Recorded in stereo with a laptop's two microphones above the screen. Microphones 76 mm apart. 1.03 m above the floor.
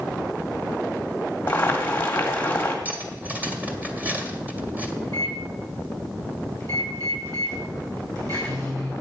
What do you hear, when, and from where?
1.5 s boiling: 25° left (ahead or behind), 1.6 m
2.9 s cutlery clinking: 20° right (ahead or behind), 1.7 m
5.0 s a microwave: 50° right (ahead or behind), 6 m